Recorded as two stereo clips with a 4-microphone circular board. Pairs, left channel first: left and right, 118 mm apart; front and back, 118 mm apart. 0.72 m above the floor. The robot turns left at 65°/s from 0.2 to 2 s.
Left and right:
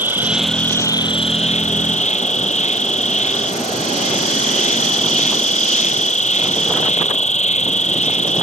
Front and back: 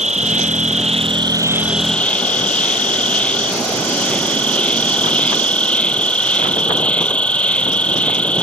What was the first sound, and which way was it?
An insect, 165° right.